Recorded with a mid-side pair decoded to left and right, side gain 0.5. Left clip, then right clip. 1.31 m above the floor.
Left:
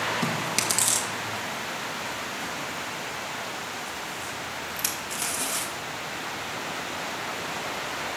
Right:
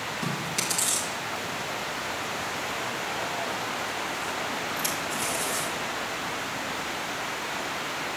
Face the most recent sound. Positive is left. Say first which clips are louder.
# left 3 dB
turn(degrees=45)